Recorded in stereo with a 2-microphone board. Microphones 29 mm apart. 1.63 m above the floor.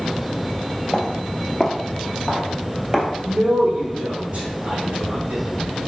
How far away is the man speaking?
About 3 m.